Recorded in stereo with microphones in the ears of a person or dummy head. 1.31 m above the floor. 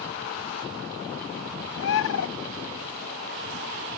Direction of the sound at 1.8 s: 65° left (ahead or behind).